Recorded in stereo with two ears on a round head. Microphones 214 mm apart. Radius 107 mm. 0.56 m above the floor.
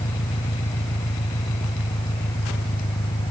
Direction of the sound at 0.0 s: 25° left (ahead or behind).